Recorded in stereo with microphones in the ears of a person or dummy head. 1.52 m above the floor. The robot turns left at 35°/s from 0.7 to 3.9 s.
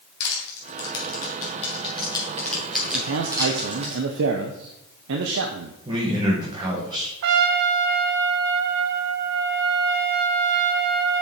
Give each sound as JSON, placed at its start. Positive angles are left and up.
{"t": 0.2, "sound": "crushing", "side_deg": 65, "distance_m": 3.0}
{"t": 2.9, "sound": "a man speaking", "azimuth_deg": -80, "distance_m": 0.7}
{"t": 5.8, "sound": "a man speaking", "side_deg": -20, "distance_m": 1.7}
{"t": 7.2, "sound": "a trumpet", "side_deg": -60, "distance_m": 0.6}